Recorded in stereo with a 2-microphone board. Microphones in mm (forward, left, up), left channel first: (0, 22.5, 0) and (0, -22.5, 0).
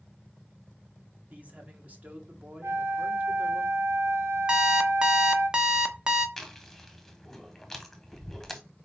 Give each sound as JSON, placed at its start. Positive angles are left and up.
{"t": 1.3, "sound": "a man speaking", "side_deg": -40, "distance_m": 1.8}
{"t": 2.6, "sound": "a flute", "side_deg": -85, "distance_m": 0.8}
{"t": 4.5, "sound": "an alarm clock", "side_deg": -20, "distance_m": 0.9}
{"t": 6.4, "sound": "chewing", "side_deg": 0, "distance_m": 1.2}